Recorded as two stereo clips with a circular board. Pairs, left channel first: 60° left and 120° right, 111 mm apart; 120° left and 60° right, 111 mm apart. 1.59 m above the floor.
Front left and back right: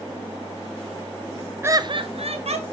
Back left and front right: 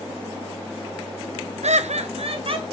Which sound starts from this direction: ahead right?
Laughter, at 1.6 s.